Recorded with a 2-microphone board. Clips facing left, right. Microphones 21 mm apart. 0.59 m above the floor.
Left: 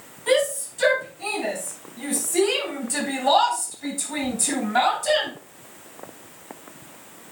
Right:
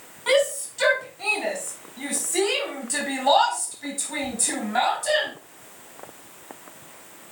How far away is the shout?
About 5 m.